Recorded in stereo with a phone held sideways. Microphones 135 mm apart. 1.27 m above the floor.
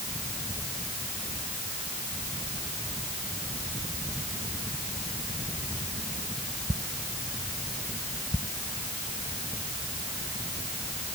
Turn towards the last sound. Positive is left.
No sound to turn to.